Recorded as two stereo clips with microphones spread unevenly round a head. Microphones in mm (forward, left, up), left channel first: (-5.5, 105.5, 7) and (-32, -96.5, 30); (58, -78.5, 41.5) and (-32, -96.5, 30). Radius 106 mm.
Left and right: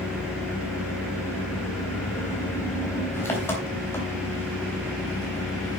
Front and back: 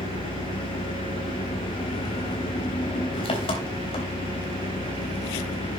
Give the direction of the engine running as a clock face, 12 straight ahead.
12 o'clock.